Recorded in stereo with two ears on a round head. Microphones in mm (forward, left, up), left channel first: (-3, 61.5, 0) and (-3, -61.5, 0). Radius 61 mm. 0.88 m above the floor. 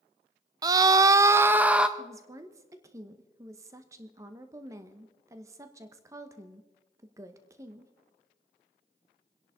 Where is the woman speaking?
20° right (ahead or behind), 0.9 m.